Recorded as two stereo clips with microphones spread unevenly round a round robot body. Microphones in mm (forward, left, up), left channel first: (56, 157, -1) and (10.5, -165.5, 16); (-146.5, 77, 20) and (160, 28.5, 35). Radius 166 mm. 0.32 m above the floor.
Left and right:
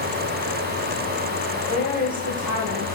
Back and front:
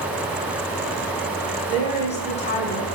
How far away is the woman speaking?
About 1.5 m.